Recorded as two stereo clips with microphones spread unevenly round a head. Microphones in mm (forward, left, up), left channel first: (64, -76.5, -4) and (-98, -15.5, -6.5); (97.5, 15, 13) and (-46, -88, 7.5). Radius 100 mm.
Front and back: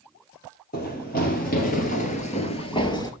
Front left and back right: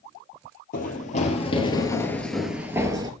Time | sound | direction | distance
0.7 | running footsteps | 10° left | 1.9 m